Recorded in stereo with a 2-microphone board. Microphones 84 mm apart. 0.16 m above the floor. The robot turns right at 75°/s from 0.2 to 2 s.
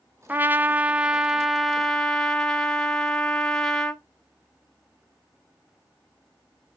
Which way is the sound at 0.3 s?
20° right (ahead or behind).